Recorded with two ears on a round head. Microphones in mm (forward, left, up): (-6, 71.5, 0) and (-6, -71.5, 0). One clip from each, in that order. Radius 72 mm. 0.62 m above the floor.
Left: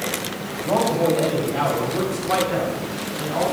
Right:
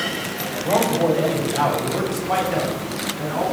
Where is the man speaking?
10° right (ahead or behind), 2.5 m; by 3.4 s 5° left (ahead or behind), 4 m.